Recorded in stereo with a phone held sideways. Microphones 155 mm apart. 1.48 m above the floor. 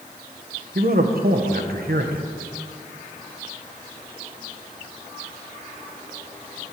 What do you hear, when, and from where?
0.8 s a man speaking: 75° right (ahead or behind), 1.4 m